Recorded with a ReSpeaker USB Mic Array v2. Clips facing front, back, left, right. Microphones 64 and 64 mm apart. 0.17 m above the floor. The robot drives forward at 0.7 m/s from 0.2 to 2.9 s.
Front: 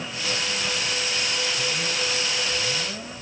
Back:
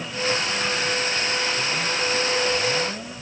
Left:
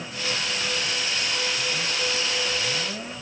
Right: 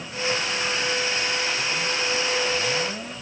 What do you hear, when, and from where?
Only background noise.